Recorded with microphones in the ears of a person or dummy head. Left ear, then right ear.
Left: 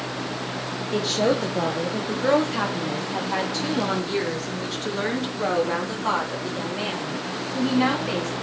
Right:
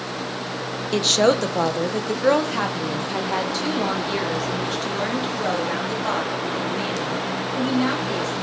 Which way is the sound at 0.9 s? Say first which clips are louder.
Right 5 dB; 55° right (ahead or behind).